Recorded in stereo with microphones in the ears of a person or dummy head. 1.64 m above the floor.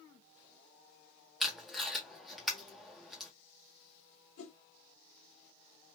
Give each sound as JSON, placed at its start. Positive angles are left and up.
{"t": 1.4, "sound": "tape being pulled", "side_deg": 0, "distance_m": 0.8}
{"t": 4.4, "sound": "a whoosh", "side_deg": 80, "distance_m": 1.0}